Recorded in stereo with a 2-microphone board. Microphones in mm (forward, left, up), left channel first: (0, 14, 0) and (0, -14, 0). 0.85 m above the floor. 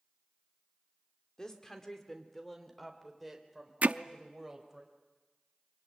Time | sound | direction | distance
1.4 | a woman speaking | 25° left (ahead or behind) | 2.5 m
3.8 | hammering | 75° right (ahead or behind) | 0.6 m